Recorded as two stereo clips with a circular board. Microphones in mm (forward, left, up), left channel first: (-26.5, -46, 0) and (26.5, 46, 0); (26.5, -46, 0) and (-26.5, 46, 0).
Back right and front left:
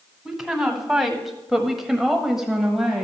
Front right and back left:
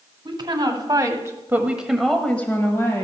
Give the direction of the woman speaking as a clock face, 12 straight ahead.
7 o'clock.